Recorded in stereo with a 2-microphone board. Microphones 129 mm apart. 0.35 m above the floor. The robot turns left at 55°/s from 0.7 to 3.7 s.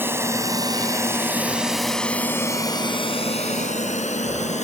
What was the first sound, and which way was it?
A drone, 15° right (ahead or behind).